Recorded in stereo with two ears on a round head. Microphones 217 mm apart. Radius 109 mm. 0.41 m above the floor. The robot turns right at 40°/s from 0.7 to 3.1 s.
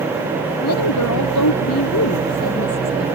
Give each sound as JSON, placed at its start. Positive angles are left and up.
{"t": 0.6, "sound": "a woman speaking", "azimuth_deg": 70}